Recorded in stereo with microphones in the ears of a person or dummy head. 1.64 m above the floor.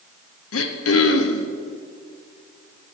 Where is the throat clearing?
80° left, 1.0 m.